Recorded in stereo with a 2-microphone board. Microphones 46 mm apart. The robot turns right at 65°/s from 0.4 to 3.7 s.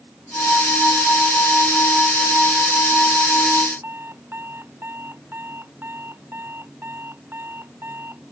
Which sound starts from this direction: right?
An alarm clock, at 3.8 s.